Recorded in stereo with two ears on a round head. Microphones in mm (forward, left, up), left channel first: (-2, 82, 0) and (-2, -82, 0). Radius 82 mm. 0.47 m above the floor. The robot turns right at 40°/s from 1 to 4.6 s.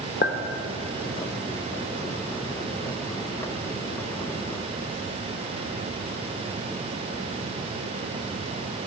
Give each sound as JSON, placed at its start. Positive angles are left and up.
{"t": 0.2, "sound": "a clink", "side_deg": 45, "distance_m": 1.0}